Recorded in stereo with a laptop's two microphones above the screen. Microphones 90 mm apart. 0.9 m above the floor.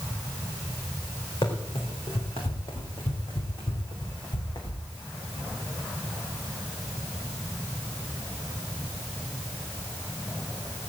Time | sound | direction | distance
1.4 | running footsteps | 70° left (ahead or behind) | 3.5 m